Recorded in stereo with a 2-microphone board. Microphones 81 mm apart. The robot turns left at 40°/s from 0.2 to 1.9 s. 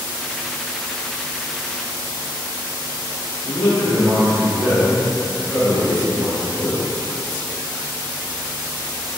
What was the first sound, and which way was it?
A man speaking, 25° left (ahead or behind).